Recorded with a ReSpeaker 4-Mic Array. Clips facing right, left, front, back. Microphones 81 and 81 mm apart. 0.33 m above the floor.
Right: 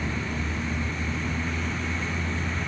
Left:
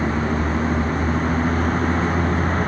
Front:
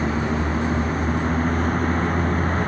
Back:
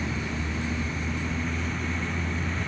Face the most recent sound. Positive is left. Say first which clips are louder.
# left 9 dB, front 9 dB
turn(degrees=45)